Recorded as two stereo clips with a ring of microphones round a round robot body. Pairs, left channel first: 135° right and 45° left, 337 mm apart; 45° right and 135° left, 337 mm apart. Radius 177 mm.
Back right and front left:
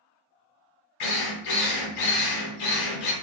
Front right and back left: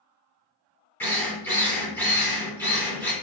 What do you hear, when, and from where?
1.0 s a drill: 130° right, 2 m